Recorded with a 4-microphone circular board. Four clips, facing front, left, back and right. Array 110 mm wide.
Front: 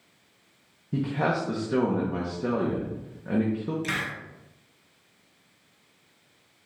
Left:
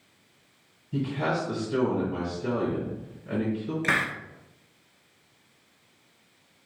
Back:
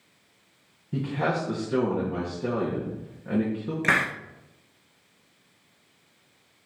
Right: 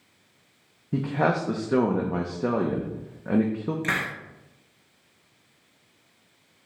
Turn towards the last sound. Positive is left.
turn(degrees=175)